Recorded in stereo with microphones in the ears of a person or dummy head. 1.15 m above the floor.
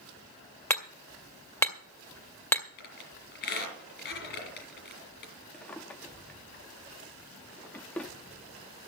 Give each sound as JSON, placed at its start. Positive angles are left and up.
{"t": 0.7, "sound": "hammering", "side_deg": 15, "distance_m": 2.0}
{"t": 2.8, "sound": "a squeak", "side_deg": 60, "distance_m": 4.0}
{"t": 5.5, "sound": "a drawer", "side_deg": 0, "distance_m": 0.6}